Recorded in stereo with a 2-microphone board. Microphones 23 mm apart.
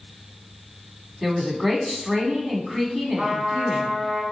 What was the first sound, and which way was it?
A woman speaking, 20° right (ahead or behind).